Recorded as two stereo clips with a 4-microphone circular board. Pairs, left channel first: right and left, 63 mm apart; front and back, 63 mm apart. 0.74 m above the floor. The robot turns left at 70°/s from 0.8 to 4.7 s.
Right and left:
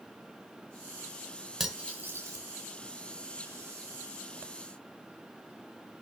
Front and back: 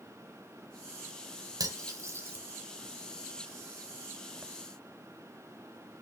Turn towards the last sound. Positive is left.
turn(degrees=-35)